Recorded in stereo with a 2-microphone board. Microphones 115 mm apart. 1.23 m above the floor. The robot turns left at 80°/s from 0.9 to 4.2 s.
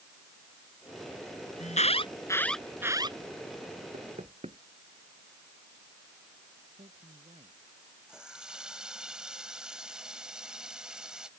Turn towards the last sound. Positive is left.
turn(degrees=-5)  # may be behind; listen again after turning